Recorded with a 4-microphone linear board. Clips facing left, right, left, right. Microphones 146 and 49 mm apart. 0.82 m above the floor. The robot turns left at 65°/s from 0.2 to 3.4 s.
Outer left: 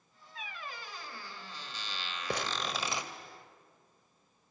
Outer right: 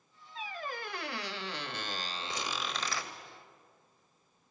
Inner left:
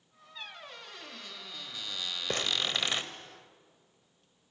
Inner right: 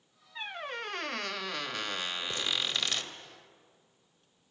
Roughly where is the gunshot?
I don't hear a gunshot.